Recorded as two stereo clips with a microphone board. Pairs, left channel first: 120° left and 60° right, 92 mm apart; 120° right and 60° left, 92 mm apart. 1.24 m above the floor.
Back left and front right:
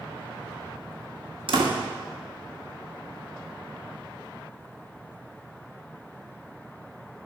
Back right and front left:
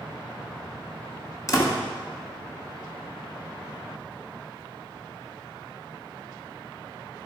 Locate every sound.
1.5 s a door slam: 70° right, 1.7 m